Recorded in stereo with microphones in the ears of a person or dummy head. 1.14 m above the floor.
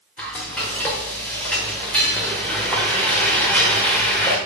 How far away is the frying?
About 1.3 m.